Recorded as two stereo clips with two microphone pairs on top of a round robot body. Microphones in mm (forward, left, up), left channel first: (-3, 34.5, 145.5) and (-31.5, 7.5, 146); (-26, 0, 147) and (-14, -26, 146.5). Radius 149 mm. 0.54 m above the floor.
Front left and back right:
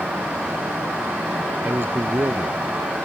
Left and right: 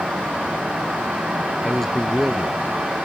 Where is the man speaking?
165° right.